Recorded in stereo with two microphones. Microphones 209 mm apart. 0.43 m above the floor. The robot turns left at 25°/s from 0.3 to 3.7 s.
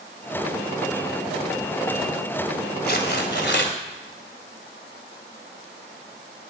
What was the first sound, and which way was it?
Tearing paper, 50° left (ahead or behind).